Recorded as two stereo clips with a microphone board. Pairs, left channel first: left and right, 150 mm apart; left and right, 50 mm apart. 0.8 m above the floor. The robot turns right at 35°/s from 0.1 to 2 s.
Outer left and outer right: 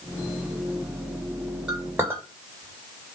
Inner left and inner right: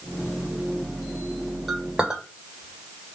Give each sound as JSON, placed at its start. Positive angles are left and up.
{"t": 1.7, "sound": "a clink", "side_deg": -5, "distance_m": 1.8}